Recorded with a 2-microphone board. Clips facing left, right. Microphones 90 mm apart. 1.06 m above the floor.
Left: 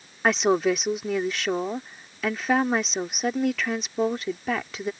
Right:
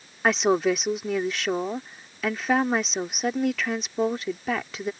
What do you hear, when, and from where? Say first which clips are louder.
0.2 s a woman speaking: even; centre (ahead or behind)